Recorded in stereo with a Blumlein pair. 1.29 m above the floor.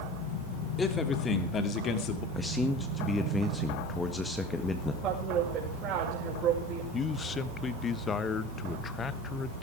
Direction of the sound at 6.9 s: 20° left.